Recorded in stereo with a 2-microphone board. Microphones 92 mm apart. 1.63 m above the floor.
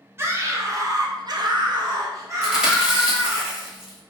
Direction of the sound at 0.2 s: 30° right (ahead or behind).